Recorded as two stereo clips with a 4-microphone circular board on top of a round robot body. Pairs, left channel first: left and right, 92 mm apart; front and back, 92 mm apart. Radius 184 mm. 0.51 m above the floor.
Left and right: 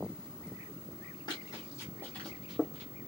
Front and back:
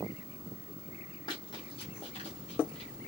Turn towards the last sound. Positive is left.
turn(degrees=-25)